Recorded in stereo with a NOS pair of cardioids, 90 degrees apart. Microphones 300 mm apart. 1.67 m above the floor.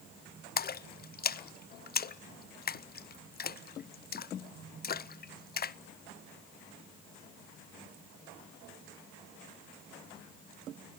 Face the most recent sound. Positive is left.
turn(degrees=35)